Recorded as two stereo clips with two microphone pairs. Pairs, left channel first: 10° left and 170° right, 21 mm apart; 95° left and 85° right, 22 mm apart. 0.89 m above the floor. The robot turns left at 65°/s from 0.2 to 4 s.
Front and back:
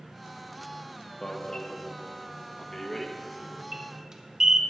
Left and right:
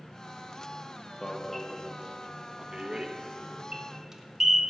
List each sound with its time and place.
1.2 s an alarm: 40° left, 1.2 m; by 4.6 s 140° right, 1.2 m